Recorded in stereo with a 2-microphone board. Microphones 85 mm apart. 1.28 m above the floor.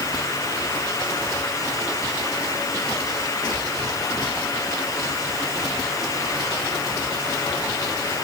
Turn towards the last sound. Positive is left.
No sound to turn to.